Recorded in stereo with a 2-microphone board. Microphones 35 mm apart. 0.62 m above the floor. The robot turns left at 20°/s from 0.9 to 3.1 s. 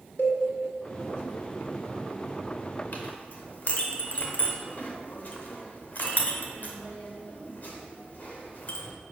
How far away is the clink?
About 1.1 m.